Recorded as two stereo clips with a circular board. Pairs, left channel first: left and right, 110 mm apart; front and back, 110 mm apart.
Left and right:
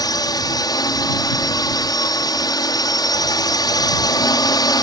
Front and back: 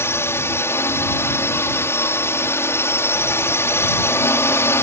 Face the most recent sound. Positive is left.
turn(degrees=60)